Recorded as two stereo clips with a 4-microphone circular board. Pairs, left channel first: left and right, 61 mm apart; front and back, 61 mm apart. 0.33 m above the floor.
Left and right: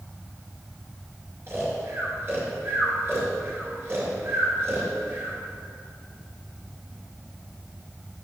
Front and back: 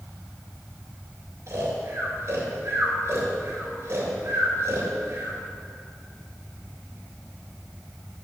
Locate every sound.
1.5 s snoring: 140° right, 2.5 m